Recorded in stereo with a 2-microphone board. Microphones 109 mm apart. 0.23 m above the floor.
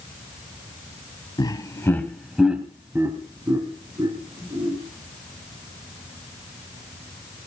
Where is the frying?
I don't hear frying.